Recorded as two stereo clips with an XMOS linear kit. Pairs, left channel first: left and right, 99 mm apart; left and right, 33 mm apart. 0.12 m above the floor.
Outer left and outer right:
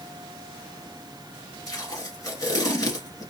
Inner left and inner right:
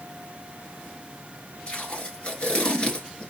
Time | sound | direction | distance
1.7 | tape being pulled | 35° left (ahead or behind) | 1.6 m